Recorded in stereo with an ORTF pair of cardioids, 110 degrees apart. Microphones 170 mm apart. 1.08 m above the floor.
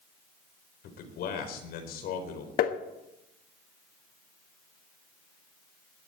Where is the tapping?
60° left, 1.4 m.